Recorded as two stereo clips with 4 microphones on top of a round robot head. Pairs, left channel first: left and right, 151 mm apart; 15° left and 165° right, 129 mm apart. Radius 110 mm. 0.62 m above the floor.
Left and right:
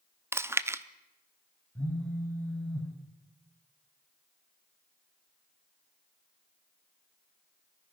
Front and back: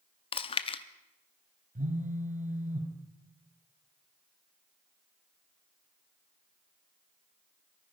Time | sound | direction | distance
0.3 | chewing | 20° right | 0.7 m
1.8 | a phone buzzing | 170° left | 2 m